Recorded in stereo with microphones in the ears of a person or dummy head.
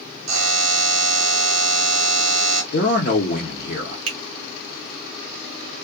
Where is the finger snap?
85° right, 1.3 m.